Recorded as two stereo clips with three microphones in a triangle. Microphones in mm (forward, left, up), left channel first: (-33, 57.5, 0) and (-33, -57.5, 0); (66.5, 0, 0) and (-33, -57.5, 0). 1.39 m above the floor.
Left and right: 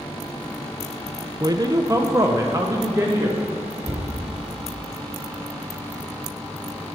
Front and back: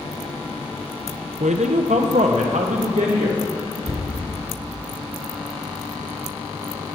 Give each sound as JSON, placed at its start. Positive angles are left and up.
{"t": 1.4, "sound": "a man speaking", "azimuth_deg": -145, "distance_m": 0.5}
{"t": 3.8, "sound": "a cupboard door", "azimuth_deg": -135, "distance_m": 2.0}